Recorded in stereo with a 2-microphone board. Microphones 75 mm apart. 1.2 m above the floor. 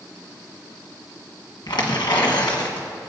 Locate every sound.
1.7 s tearing paper: 70° left (ahead or behind), 1.3 m